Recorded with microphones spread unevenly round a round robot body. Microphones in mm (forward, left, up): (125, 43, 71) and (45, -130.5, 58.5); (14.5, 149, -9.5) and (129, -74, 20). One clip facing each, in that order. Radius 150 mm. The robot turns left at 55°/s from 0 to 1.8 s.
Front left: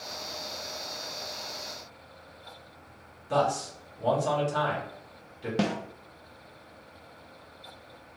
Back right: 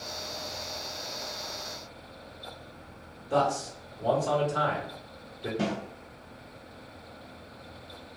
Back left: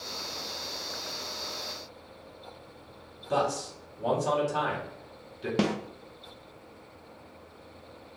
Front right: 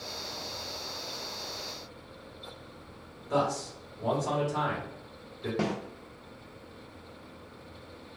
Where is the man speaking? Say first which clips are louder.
Even, even; 75° left, 1.7 m.